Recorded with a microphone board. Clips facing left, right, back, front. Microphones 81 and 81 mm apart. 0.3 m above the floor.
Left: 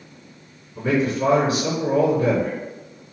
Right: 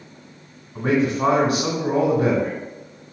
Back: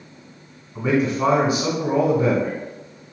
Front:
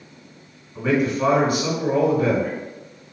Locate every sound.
0.8 s a man speaking: 110° right, 2 m